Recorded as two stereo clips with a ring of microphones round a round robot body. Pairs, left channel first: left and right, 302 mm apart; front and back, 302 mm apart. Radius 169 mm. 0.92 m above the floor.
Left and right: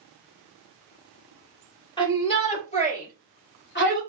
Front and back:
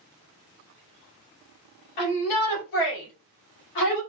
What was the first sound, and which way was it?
A shout, 15° left.